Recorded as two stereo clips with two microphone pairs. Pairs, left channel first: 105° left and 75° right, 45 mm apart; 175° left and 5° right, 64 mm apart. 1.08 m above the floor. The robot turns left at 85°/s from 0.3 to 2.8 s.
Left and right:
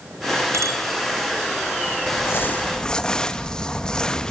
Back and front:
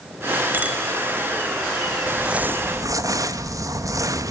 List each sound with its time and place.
0.5 s a bicycle bell: 65° right, 3.5 m; by 0.8 s 85° right, 3.5 m
2.1 s crumpling: 90° left, 1.7 m; by 4.3 s 30° left, 1.7 m